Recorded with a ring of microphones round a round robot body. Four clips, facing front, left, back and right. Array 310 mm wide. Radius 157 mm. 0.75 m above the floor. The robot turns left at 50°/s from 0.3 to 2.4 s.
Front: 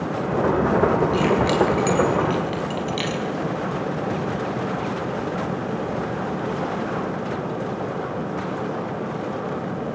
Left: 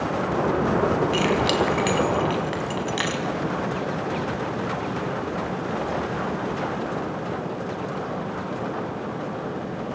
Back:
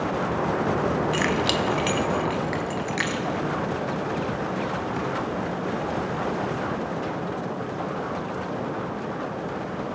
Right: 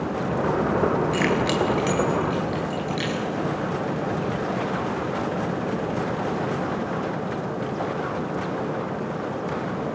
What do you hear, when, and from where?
1.1 s keys jangling: 165° left, 4 m; by 3.2 s 105° left, 4 m